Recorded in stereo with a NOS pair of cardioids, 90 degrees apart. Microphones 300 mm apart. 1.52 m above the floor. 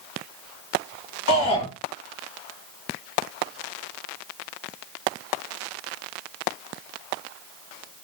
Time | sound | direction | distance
1.3 | a shout | 60° left | 2 m